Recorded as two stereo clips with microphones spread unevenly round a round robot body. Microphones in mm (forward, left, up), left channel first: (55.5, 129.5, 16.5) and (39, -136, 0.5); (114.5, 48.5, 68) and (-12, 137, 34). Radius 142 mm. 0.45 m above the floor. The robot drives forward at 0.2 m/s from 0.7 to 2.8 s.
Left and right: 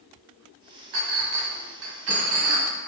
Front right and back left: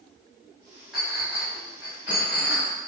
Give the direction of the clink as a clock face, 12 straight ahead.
4 o'clock.